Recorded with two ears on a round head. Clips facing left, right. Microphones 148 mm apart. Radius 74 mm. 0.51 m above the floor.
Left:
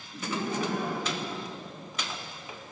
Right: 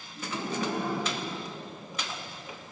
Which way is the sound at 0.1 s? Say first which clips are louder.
Left 2 dB; 50° left (ahead or behind).